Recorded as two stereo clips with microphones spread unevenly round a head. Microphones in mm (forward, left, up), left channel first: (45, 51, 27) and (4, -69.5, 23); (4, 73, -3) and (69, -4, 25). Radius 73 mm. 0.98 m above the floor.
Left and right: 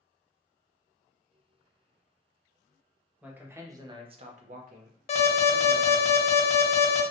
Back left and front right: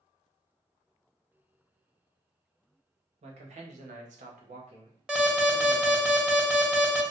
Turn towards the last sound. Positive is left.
turn(degrees=40)